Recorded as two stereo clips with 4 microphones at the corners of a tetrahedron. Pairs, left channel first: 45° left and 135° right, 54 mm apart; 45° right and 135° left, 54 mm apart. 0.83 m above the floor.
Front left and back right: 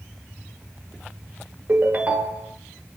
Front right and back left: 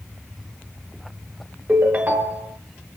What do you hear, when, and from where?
1.7 s a ringtone: 175° left, 0.9 m